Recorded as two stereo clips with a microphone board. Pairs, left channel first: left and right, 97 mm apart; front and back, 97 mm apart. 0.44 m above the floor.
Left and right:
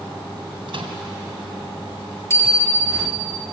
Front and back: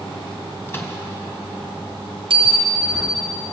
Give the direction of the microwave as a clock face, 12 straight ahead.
2 o'clock.